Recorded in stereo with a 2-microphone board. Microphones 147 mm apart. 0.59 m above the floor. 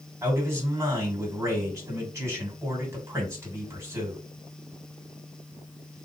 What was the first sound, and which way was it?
A man speaking, 20° right (ahead or behind).